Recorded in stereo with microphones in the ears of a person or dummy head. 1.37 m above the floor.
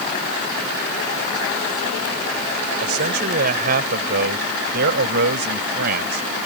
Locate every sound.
2.8 s a man speaking: 50° right (ahead or behind); by 6.5 s 60° right (ahead or behind)